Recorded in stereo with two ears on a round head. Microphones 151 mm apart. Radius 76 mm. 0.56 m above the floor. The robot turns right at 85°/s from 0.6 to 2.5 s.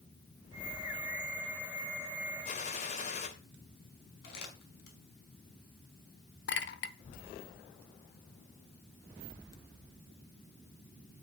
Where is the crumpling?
65° left (ahead or behind), 5 m.